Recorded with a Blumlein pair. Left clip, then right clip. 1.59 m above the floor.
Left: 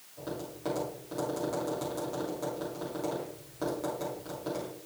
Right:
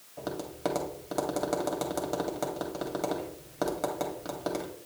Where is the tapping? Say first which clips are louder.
Right 5 dB; 65° right, 2 m.